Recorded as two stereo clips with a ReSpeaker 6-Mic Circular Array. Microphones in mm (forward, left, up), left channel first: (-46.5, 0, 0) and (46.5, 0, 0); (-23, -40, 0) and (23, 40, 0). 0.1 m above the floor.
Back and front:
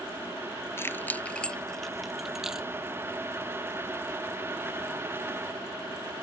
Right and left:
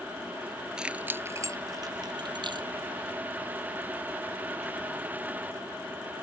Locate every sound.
0.8 s keys jangling: 135° left; by 2.7 s 85° left